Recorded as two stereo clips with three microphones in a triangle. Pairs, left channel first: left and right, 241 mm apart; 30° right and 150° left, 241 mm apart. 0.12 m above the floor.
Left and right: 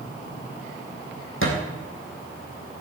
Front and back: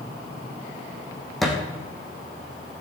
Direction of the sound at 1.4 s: 60° left.